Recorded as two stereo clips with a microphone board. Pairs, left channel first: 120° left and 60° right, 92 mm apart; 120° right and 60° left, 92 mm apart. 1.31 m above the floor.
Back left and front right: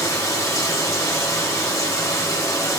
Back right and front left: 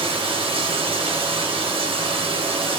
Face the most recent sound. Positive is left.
turn(degrees=65)